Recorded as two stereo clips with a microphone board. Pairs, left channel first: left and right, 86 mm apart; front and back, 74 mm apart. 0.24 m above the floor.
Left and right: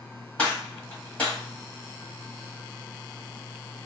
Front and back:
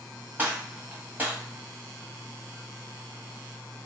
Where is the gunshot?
145° left, 1.6 m.